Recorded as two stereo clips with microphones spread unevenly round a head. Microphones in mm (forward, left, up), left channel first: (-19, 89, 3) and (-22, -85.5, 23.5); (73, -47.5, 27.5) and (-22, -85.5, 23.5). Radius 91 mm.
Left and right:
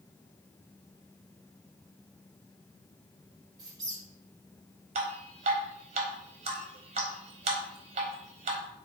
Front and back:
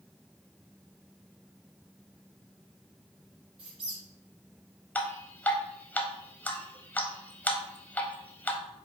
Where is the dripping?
50° right, 0.7 m.